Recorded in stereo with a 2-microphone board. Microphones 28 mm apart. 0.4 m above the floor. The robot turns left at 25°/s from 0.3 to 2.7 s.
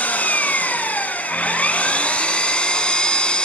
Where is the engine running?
95° left, 1.4 m; by 3.5 s 35° left, 1.4 m.